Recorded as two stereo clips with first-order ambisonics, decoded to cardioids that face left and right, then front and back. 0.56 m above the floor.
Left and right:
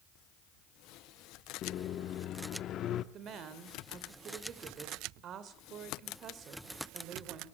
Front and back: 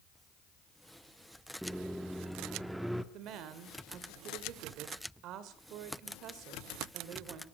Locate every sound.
1.6 s a microwave: 95° left, 0.8 m
3.1 s a woman speaking: 145° right, 2 m